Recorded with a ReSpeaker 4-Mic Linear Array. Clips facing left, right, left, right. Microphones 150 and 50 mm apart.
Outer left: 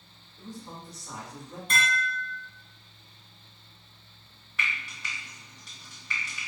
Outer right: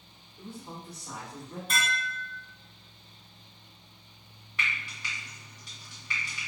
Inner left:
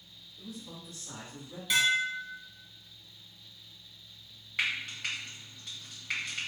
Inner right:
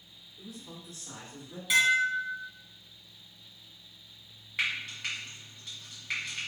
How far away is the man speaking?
About 2.0 m.